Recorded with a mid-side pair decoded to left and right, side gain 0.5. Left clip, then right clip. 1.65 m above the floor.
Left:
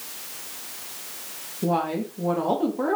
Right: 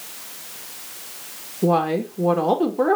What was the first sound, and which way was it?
A woman speaking, 30° right.